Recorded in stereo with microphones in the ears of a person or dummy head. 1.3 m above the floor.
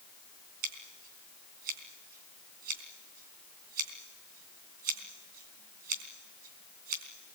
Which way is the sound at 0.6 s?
50° right (ahead or behind).